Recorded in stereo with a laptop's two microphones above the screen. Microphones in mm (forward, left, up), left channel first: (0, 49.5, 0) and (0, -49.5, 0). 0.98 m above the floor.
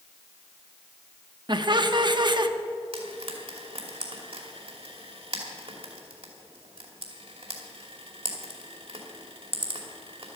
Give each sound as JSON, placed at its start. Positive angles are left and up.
{"t": 1.5, "sound": "laughter", "side_deg": -50, "distance_m": 1.0}
{"t": 2.9, "sound": "frying", "side_deg": -70, "distance_m": 2.5}